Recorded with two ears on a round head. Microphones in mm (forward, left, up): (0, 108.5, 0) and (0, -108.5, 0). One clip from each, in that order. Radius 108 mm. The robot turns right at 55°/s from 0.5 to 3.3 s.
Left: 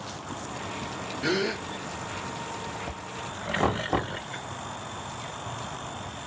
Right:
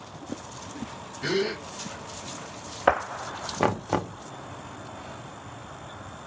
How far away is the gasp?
About 3.5 m.